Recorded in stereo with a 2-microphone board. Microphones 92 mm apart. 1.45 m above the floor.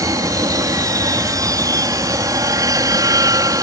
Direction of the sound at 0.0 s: 40° right (ahead or behind).